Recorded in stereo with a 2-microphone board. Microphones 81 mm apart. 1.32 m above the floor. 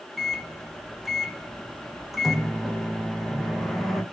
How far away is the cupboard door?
No cupboard door in this recording.